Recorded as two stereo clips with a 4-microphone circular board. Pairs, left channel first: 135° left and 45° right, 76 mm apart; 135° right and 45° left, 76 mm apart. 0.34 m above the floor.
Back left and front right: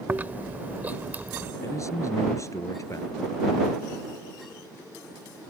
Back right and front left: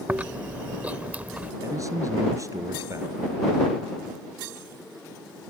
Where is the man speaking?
90° left.